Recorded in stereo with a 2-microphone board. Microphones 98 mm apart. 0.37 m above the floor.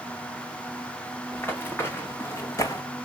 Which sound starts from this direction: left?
Running footsteps, at 1.3 s.